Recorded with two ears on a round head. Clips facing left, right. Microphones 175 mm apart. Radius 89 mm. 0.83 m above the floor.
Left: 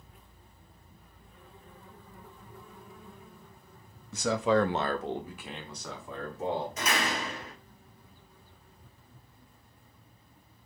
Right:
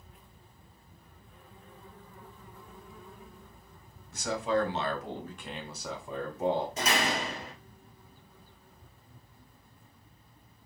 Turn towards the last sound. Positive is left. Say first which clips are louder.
# right 1 dB
turn(degrees=-30)  # may be behind; listen again after turning